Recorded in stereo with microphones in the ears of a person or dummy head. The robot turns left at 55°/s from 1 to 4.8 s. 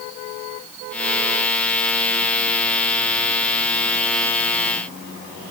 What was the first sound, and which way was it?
Only background noise.